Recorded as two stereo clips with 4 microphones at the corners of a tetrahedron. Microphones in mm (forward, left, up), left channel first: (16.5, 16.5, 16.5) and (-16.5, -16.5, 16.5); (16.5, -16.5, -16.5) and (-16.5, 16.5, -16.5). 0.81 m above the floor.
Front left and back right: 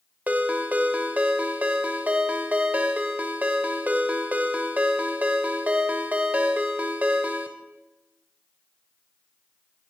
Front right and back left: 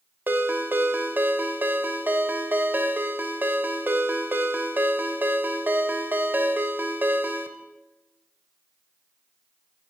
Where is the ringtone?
175° left, 1.0 m.